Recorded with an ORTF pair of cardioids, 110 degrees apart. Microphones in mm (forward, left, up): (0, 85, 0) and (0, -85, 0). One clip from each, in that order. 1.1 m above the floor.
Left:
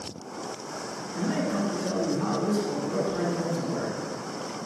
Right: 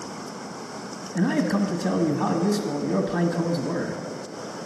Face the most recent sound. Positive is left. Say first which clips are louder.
# right 4 dB
turn(degrees=-60)